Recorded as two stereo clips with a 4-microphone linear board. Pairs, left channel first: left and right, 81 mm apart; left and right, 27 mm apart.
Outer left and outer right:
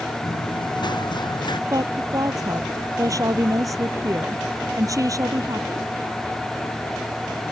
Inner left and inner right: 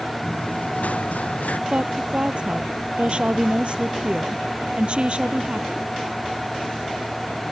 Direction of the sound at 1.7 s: 45° right (ahead or behind).